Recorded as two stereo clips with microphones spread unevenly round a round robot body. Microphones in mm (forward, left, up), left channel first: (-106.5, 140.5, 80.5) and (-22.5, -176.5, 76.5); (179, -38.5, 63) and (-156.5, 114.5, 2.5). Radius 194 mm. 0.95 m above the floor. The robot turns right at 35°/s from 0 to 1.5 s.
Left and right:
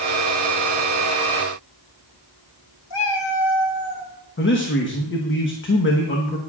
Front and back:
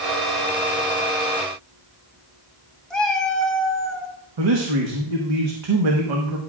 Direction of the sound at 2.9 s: 60° left.